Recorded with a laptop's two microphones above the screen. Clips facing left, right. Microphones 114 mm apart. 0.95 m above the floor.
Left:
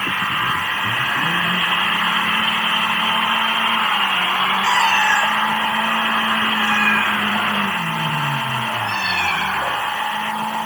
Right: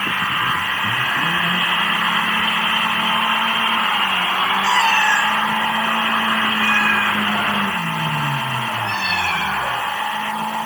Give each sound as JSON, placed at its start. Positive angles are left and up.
{"t": 4.6, "sound": "a cat meowing", "side_deg": 0, "distance_m": 1.6}